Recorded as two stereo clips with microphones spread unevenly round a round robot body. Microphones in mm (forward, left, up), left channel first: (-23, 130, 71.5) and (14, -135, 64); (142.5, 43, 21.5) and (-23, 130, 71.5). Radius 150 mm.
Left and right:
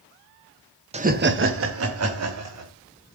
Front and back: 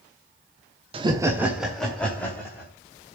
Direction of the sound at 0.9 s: 140° right.